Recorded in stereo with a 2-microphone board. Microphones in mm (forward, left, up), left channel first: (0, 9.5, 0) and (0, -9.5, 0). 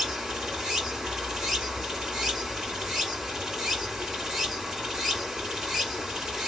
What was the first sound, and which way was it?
Running water, 35° right (ahead or behind).